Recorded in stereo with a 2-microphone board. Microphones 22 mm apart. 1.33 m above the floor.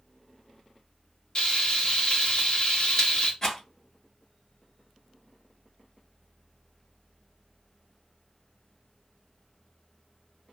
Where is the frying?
40° left (ahead or behind), 0.9 m.